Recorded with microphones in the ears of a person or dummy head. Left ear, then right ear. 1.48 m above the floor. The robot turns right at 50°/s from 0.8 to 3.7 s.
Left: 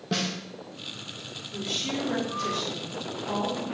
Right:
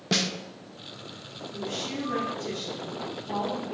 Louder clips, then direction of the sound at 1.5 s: Left 3 dB; 30° left.